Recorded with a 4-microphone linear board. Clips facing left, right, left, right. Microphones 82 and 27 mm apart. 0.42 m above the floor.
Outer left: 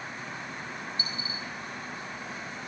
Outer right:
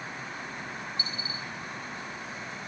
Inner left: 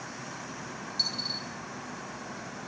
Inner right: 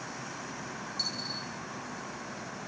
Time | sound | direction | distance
1.0 | a dropped coin | 20° left (ahead or behind) | 1.3 m